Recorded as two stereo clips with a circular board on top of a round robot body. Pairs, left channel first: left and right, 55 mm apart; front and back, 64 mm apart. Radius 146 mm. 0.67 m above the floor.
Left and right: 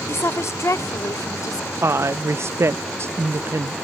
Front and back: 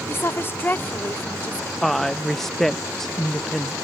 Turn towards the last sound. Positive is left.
turn(degrees=-85)